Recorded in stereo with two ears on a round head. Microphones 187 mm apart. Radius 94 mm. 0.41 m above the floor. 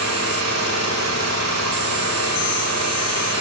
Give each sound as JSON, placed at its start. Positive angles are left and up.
{"t": 0.0, "sound": "an engine running", "side_deg": -80, "distance_m": 8.5}